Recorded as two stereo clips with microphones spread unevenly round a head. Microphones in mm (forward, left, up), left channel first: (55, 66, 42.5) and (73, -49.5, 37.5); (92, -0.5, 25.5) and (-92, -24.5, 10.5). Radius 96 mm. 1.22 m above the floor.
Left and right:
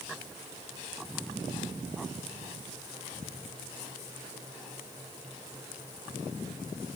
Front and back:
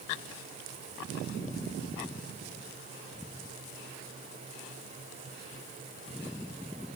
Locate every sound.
Only background noise.